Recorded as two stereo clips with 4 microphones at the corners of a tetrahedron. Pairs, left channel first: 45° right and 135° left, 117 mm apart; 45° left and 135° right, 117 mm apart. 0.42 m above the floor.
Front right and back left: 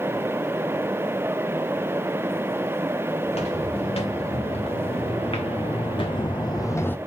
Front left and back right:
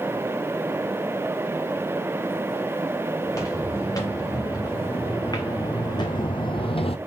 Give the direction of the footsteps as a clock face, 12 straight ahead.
1 o'clock.